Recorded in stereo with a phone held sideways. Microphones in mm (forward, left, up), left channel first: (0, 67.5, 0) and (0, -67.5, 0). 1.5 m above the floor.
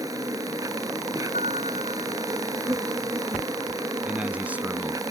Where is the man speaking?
10° right (ahead or behind).